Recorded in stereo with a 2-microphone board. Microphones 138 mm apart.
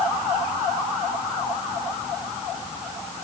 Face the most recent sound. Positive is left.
No sound to turn to.